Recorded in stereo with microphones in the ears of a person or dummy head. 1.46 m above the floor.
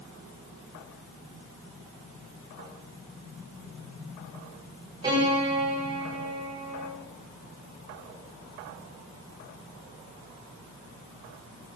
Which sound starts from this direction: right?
A piano, at 5.0 s.